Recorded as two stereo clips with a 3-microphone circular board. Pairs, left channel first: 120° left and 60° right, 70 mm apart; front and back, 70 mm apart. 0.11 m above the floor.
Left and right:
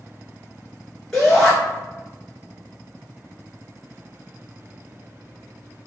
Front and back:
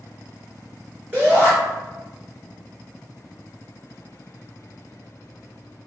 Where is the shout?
165° right, 1.9 m.